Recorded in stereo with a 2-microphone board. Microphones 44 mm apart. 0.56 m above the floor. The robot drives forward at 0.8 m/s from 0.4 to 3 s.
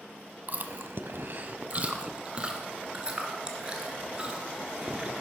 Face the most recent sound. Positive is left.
turn(degrees=-20)  # may be behind; listen again after turning